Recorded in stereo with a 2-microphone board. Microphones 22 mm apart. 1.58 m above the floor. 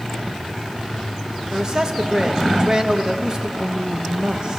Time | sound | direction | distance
1.5 | a man speaking | 25° right (ahead or behind) | 1.7 m
3.6 | a woman speaking | 50° right (ahead or behind) | 1.3 m